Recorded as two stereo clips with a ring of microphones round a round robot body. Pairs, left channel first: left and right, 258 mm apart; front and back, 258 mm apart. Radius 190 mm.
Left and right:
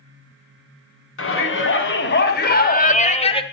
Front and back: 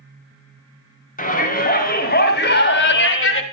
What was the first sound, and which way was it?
A shout, 55° left.